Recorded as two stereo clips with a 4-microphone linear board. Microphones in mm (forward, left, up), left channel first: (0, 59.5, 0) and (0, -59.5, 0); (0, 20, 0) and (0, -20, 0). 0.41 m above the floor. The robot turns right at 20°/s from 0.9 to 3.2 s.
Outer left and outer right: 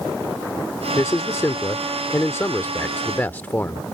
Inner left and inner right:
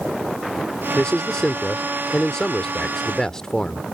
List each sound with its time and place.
0.9 s a man speaking: 25° left (ahead or behind); by 3.8 s 15° left (ahead or behind)